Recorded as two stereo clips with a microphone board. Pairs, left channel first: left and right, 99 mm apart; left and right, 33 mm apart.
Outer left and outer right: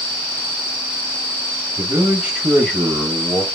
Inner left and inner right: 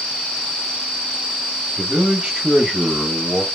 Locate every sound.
1.8 s a man speaking: 25° right (ahead or behind), 1.5 m; by 3.5 s 25° left (ahead or behind), 1.3 m